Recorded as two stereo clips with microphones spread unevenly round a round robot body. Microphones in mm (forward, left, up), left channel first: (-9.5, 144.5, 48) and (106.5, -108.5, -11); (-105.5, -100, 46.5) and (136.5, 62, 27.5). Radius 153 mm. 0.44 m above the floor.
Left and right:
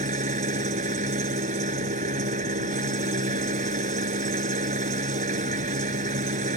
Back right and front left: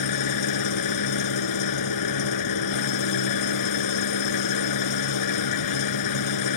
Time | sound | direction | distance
0.0 | an engine running | 130° right | ?